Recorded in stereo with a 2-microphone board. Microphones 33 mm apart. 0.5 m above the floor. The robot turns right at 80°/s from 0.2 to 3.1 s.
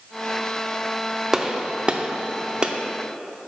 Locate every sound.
1.3 s a gunshot: 10° right (ahead or behind), 0.5 m; by 2.7 s 25° right (ahead or behind), 0.5 m